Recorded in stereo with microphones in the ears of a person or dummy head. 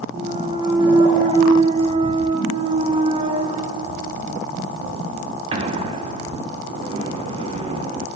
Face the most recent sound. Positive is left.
turn(degrees=-30)  # may be behind; listen again after turning